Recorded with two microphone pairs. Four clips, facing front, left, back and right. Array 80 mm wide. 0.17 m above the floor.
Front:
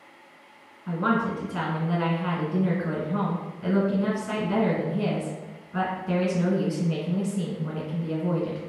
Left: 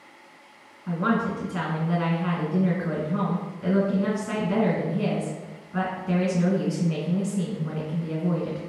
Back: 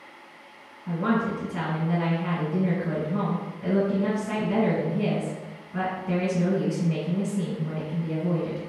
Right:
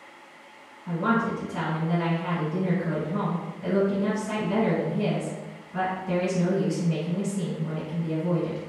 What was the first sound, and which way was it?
A woman speaking, 30° left.